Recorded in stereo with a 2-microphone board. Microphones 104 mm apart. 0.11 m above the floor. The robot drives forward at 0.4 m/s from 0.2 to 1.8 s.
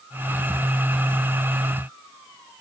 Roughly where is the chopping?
I don't hear chopping.